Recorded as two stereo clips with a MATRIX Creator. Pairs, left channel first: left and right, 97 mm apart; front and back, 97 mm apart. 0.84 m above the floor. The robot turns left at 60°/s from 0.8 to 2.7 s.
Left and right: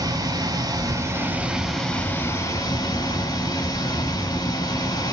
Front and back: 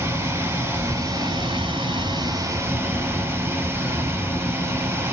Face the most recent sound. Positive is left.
turn(degrees=125)